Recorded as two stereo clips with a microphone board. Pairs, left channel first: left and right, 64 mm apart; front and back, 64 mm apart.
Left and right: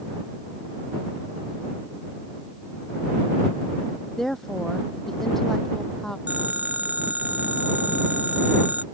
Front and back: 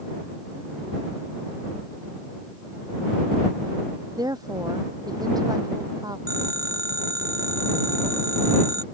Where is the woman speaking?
175° left.